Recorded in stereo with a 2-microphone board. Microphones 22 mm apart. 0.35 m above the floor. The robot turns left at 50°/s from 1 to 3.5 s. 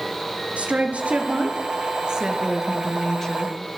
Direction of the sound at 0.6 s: 85° right.